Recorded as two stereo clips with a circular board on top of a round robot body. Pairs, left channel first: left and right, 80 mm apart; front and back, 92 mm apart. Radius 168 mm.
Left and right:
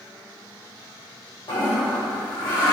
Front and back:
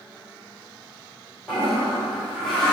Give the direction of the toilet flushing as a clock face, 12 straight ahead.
9 o'clock.